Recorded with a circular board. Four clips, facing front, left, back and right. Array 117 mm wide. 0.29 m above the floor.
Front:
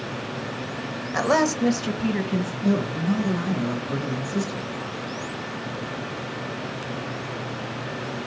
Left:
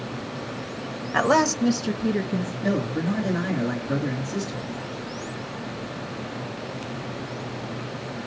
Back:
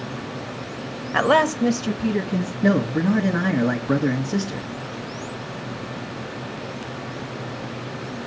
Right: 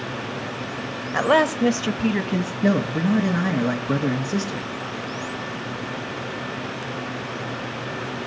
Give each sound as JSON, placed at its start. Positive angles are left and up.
{"t": 1.1, "sound": "a woman speaking", "azimuth_deg": 160, "distance_m": 0.9}
{"t": 2.6, "sound": "a man speaking", "azimuth_deg": -140, "distance_m": 2.5}